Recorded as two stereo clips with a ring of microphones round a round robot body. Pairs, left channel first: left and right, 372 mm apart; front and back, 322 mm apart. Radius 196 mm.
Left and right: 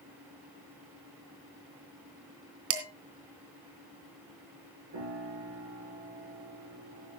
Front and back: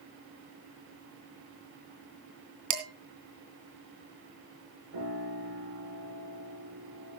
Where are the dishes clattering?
145° right, 2.5 m.